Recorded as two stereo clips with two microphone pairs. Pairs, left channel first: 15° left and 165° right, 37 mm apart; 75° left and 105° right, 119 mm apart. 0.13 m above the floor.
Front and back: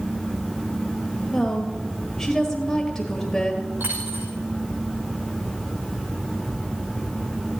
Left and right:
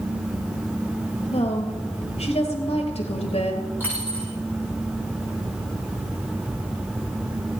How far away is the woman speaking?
About 1.7 m.